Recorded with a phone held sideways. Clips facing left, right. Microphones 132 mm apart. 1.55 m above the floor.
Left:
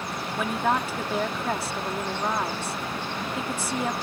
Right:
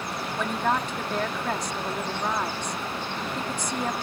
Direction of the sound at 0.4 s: 5° left (ahead or behind).